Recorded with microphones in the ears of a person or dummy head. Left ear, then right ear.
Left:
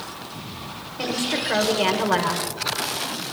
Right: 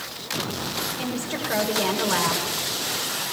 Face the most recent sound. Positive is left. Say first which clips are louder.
# left 4 dB
turn(degrees=5)  # may be behind; listen again after turning